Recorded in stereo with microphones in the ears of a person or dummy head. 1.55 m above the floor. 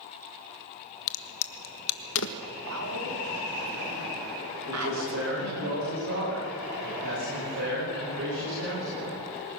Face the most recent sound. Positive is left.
turn(degrees=-70)  # may be behind; listen again after turning